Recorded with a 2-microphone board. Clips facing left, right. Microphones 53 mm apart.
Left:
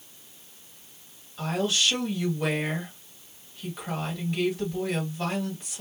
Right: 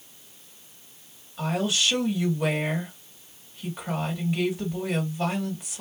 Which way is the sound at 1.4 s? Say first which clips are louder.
Right 1 dB; 10° right (ahead or behind).